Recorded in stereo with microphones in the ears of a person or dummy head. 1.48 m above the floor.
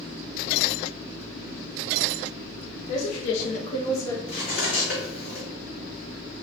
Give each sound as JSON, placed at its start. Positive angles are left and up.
{"t": 2.9, "sound": "a woman speaking", "side_deg": 75, "distance_m": 0.9}
{"t": 4.3, "sound": "cutlery clinking", "side_deg": 55, "distance_m": 1.8}